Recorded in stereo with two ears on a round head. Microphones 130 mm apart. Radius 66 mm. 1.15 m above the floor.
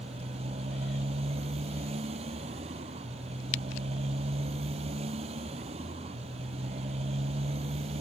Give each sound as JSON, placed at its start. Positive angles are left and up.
{"t": 0.0, "sound": "a motorcycle", "side_deg": -45}